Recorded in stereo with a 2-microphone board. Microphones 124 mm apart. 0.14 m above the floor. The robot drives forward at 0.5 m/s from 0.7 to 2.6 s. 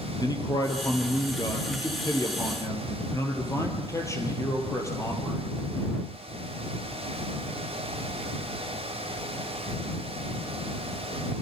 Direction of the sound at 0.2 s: 30° left (ahead or behind).